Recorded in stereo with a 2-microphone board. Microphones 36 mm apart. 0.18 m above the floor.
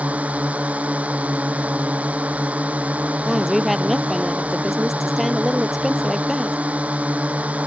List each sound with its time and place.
0.0 s a drone: 40° right (ahead or behind)
3.2 s a woman speaking: 5° right (ahead or behind)